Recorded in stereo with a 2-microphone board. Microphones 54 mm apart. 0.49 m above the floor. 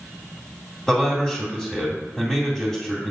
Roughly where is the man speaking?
Centre.